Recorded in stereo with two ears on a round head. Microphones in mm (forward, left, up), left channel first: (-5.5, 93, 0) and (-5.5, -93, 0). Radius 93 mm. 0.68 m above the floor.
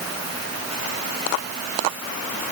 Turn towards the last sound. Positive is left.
No sound to turn to.